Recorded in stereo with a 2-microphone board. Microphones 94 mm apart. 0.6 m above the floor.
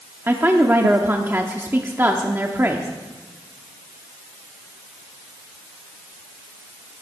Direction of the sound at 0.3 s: 25° right (ahead or behind).